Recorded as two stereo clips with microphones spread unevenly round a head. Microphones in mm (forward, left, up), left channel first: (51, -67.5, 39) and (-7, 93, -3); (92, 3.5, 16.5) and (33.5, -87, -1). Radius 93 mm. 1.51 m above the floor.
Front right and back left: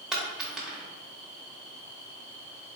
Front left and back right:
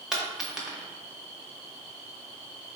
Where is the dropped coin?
15° right, 0.8 m.